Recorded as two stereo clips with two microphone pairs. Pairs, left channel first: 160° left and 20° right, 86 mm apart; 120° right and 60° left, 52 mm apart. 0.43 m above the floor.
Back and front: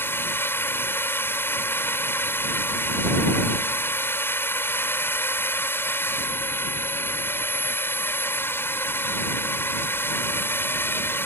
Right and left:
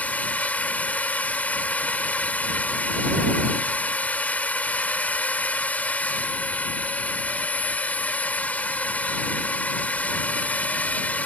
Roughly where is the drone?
Behind right.